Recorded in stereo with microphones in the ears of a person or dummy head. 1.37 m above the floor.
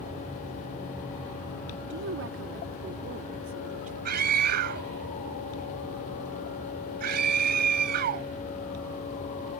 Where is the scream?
55° right (ahead or behind).